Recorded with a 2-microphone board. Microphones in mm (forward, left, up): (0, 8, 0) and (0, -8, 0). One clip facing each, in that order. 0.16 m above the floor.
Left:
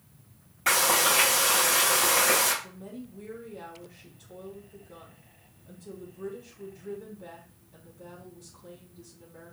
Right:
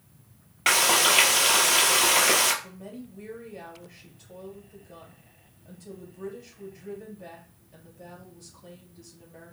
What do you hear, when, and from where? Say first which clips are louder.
0.7 s frying: right 3 dB; 55° right (ahead or behind), 1.1 m
2.6 s a woman speaking: right 1 dB; 60° right (ahead or behind), 3 m